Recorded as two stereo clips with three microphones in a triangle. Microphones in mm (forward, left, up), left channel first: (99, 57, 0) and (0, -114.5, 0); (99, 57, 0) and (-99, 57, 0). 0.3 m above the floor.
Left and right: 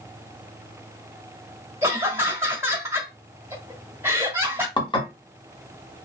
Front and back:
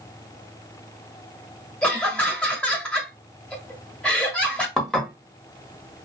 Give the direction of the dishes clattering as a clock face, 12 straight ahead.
9 o'clock.